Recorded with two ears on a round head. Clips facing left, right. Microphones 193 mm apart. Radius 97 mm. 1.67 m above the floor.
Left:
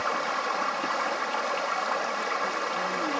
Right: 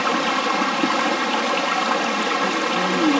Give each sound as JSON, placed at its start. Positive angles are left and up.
{"t": 0.0, "sound": "running water", "side_deg": -75}